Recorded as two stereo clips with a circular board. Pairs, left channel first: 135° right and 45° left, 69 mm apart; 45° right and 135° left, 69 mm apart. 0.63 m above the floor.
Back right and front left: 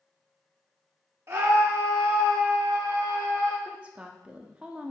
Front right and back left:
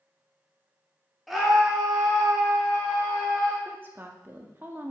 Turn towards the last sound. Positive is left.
turn(degrees=105)